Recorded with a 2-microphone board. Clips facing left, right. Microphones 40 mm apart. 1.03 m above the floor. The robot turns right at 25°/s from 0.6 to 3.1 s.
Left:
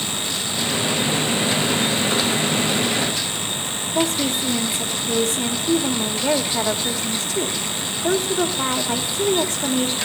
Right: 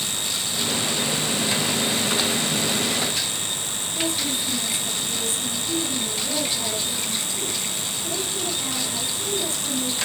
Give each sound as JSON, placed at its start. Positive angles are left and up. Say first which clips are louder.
{"t": 4.0, "sound": "a woman speaking", "louder": "left 6 dB", "side_deg": 75, "distance_m": 3.0}